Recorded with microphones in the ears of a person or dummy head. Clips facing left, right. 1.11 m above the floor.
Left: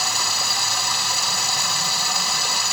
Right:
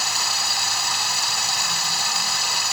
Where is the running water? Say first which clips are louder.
Left 2 dB; 75° left (ahead or behind), 0.8 m.